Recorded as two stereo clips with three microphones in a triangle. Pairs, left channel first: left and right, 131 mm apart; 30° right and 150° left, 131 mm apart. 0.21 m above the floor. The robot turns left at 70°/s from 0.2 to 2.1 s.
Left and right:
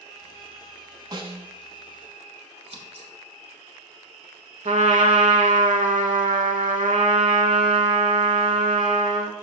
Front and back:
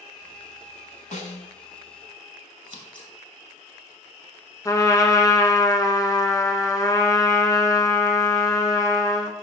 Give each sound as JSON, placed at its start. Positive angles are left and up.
{"t": 1.1, "sound": "a snare drum", "azimuth_deg": -35, "distance_m": 0.6}
{"t": 2.6, "sound": "scissors", "azimuth_deg": -70, "distance_m": 1.1}
{"t": 4.7, "sound": "a trumpet", "azimuth_deg": -95, "distance_m": 0.6}